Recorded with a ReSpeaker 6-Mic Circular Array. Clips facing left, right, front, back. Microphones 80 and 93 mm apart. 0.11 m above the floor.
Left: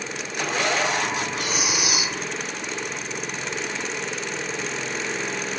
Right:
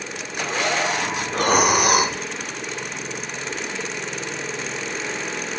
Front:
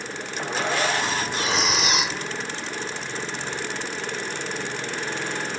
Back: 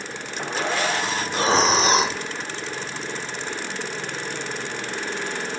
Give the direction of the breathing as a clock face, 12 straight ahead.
4 o'clock.